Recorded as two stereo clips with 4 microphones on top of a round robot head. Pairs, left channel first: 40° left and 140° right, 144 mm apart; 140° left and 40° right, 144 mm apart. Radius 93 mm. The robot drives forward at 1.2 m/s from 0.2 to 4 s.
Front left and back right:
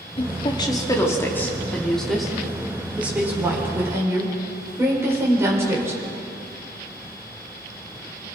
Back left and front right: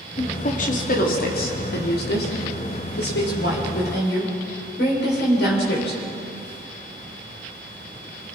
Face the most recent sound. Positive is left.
turn(degrees=145)